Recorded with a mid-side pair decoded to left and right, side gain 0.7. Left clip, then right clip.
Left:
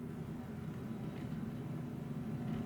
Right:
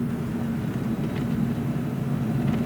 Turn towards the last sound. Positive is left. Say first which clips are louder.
# right 17 dB
turn(degrees=-60)